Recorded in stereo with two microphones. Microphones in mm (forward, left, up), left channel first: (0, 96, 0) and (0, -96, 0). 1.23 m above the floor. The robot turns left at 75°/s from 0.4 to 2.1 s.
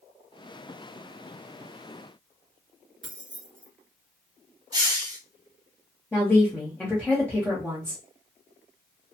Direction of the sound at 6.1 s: 5° left (ahead or behind).